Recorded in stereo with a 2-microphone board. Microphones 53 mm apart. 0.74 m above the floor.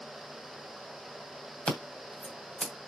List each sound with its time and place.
1.7 s scissors: 20° left (ahead or behind), 2.5 m